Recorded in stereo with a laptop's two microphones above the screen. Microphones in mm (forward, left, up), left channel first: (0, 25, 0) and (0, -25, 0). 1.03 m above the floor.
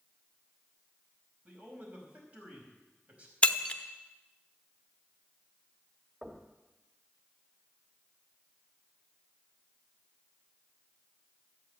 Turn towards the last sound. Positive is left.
turn(degrees=-25)  # may be behind; listen again after turning